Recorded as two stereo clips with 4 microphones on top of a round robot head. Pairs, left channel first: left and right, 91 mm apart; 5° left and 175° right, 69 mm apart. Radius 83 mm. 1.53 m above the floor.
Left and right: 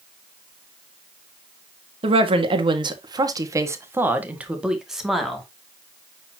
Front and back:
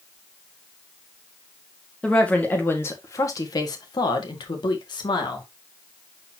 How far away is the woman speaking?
About 1.8 m.